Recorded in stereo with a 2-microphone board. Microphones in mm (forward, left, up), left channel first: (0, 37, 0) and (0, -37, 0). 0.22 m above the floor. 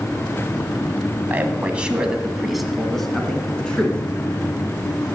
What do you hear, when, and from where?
1.3 s a man speaking: 25° right (ahead or behind), 1.3 m; by 4.0 s 15° left (ahead or behind), 2 m